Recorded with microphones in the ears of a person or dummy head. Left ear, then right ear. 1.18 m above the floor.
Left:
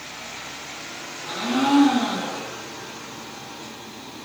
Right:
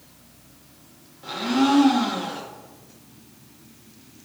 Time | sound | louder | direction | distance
1.2 | a blender | right 1 dB | 5° right (ahead or behind) | 1.4 m